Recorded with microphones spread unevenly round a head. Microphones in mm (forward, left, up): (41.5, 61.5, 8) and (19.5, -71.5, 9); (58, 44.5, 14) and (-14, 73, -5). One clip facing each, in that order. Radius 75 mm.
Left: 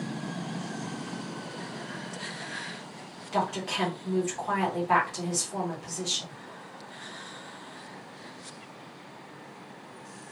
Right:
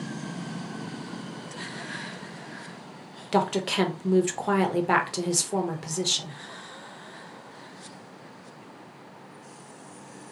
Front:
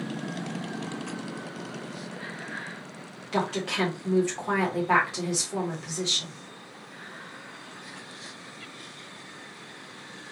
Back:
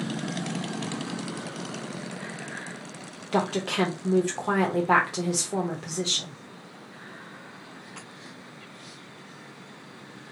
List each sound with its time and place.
3.3 s a woman speaking: 135° right, 0.7 m